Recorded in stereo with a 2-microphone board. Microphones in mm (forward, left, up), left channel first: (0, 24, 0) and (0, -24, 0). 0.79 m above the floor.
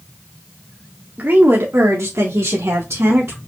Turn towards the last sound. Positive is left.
turn(degrees=-60)  # may be behind; listen again after turning